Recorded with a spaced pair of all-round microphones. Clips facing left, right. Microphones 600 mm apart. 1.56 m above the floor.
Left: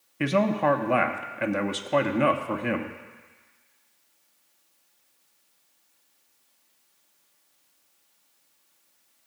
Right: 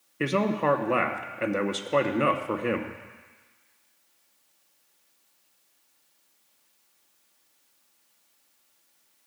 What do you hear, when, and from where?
0.2 s a man speaking: 15° left (ahead or behind), 0.6 m